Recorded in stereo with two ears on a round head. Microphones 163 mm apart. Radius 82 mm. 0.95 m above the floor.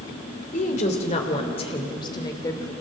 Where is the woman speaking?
45° left (ahead or behind), 3 m; by 2.7 s 15° left (ahead or behind), 3 m.